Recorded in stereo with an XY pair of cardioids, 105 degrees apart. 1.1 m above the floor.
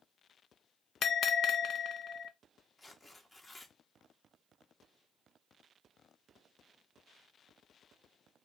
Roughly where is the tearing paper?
Ahead.